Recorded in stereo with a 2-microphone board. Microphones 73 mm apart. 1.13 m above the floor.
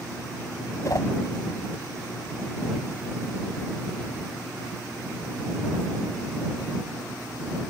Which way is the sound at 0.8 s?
45° left (ahead or behind).